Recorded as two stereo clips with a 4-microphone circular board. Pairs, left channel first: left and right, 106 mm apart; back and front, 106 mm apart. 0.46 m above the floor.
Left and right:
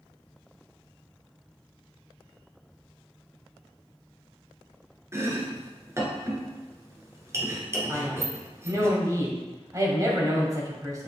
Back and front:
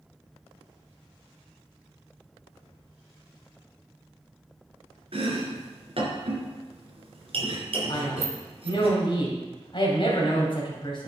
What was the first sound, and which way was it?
Chopping, 25° right.